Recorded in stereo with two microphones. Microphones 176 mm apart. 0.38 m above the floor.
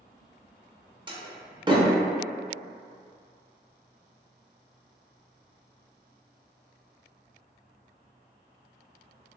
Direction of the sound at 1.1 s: 25° right (ahead or behind).